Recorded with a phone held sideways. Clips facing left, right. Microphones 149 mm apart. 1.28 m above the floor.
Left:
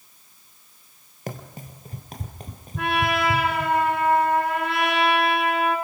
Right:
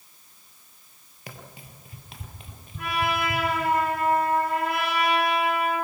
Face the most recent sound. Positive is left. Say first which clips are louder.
# left 4 dB
turn(degrees=75)  # may be behind; listen again after turning